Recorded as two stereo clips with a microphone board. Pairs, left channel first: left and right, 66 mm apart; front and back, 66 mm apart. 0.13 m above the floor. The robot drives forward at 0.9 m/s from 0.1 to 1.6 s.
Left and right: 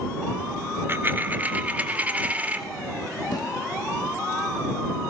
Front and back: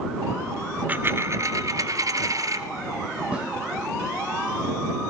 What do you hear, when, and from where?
0.9 s a dropped coin: 125° right, 0.8 m; by 2.6 s 155° right, 1.2 m
3.3 s a snare drum: 105° left, 5.5 m